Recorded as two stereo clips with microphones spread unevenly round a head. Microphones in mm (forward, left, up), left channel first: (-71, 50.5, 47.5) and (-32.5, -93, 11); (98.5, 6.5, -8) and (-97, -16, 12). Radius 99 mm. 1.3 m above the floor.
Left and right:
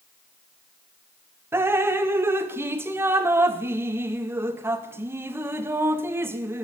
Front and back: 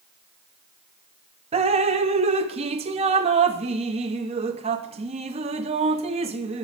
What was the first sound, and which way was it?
Dripping, 160° right.